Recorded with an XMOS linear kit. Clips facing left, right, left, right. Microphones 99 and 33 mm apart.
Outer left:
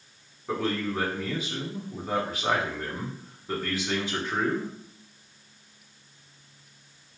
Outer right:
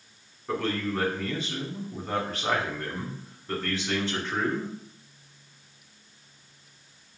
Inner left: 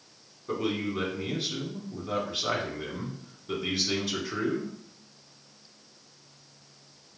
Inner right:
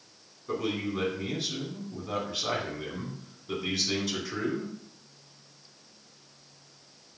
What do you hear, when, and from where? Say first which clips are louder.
0.5 s a man speaking: even, inner left 1 dB; 10° left (ahead or behind), 1.4 m